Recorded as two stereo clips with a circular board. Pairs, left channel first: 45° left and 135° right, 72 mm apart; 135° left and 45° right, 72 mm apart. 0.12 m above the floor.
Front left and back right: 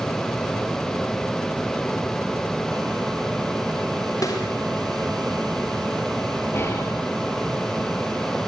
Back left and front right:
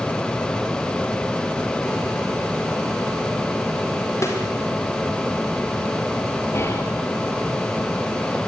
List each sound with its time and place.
4.2 s a snare drum: 85° left, 6.5 m
6.5 s whispering: 95° left, 2 m